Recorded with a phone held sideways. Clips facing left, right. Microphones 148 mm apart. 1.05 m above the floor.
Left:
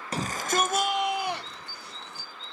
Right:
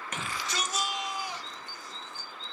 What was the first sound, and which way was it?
A shout, 35° left (ahead or behind).